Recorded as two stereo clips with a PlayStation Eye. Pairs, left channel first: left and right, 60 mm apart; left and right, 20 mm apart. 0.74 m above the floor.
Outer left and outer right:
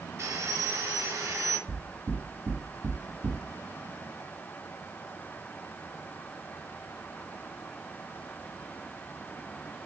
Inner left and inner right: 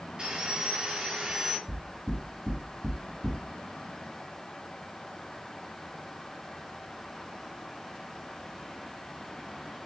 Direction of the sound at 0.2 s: 55° right (ahead or behind).